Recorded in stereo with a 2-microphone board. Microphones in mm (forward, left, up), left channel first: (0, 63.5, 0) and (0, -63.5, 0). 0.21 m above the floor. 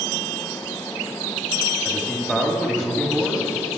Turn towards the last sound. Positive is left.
turn(degrees=5)  # may be behind; listen again after turning